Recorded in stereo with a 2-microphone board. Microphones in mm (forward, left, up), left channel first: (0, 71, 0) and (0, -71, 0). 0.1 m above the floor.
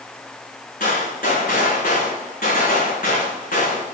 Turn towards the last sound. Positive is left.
turn(degrees=85)